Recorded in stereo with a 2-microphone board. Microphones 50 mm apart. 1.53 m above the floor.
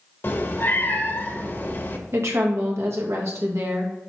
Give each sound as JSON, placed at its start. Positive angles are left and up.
{"t": 0.2, "sound": "a cat meowing", "side_deg": 45, "distance_m": 1.0}
{"t": 2.1, "sound": "a woman speaking", "side_deg": -65, "distance_m": 2.0}